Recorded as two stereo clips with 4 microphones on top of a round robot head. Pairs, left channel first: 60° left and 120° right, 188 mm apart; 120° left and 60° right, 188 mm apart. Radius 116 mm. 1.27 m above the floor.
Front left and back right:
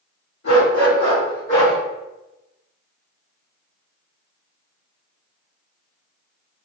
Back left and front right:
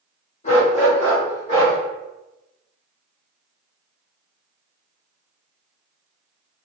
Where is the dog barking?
70° left, 1.5 m; by 1.8 s 100° left, 1.1 m.